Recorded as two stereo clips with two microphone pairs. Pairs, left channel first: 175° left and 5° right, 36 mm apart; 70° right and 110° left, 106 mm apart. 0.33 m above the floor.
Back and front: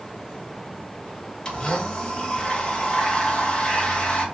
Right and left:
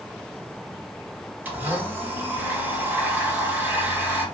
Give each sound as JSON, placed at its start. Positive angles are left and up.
{"t": 1.4, "sound": "a blender", "azimuth_deg": 165, "distance_m": 0.9}